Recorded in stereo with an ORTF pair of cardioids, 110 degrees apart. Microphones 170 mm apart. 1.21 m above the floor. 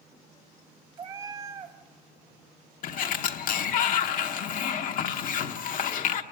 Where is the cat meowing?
30° right, 1.5 m.